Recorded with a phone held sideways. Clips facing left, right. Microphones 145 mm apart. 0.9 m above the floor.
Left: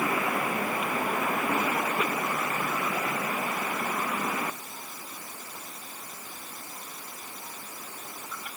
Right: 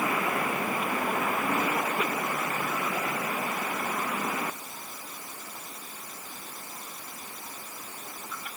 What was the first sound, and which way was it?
Only background noise.